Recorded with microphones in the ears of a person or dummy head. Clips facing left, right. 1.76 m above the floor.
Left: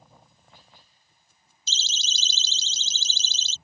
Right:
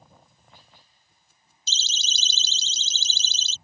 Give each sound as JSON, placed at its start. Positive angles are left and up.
{"t": 1.7, "sound": "a siren", "side_deg": -75}